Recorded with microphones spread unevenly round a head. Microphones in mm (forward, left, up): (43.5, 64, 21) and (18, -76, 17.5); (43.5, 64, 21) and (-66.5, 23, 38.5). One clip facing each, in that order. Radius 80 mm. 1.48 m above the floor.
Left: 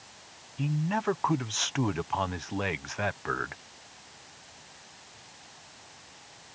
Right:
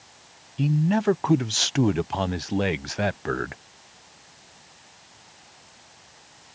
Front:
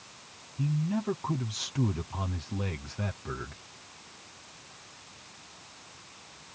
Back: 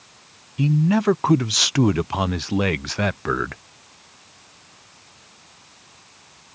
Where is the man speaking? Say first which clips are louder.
Right 7 dB, back 11 dB; 160° right.